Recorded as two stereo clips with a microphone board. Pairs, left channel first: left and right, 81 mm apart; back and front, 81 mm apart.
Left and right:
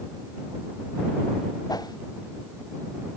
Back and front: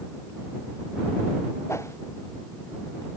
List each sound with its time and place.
1.7 s a whoosh: 125° left